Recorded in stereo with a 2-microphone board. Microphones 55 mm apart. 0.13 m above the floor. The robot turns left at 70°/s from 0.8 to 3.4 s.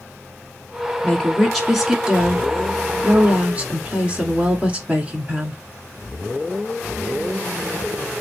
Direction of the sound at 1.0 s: 40° left.